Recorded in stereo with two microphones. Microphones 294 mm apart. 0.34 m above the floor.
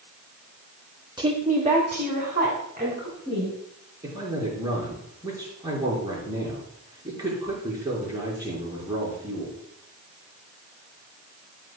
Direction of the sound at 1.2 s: 15° right (ahead or behind).